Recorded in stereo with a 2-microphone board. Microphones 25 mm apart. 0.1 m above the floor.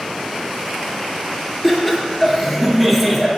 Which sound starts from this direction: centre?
Laughter, at 1.6 s.